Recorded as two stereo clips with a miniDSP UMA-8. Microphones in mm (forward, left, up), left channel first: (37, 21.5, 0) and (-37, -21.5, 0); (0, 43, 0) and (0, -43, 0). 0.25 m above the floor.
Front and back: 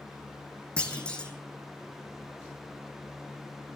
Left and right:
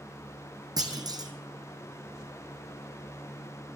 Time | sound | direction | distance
0.8 | a clunk | 50° right | 2.5 m